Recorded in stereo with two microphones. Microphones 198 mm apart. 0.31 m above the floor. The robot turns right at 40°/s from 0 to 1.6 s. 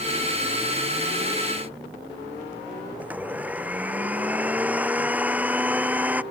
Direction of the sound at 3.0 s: 10° right (ahead or behind).